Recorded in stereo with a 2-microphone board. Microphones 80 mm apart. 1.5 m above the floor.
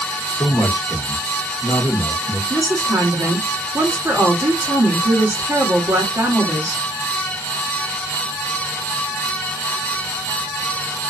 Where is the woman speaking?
40° right (ahead or behind), 1.3 m.